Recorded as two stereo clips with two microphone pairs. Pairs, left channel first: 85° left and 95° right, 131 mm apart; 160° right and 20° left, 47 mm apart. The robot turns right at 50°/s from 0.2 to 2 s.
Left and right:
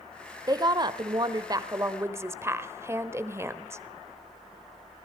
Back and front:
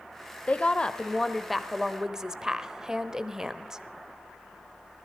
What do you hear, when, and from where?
0.5 s a woman speaking: 125° right, 1.0 m; by 3.8 s 45° right, 1.0 m